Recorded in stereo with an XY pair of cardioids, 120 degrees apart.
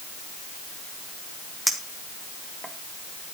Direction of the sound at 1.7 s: 5° right.